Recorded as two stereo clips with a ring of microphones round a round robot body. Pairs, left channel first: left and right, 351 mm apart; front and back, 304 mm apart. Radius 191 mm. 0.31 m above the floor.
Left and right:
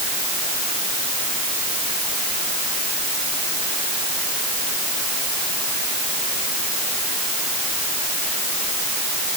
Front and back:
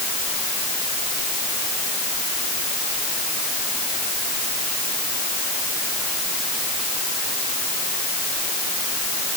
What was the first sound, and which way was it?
Only background noise.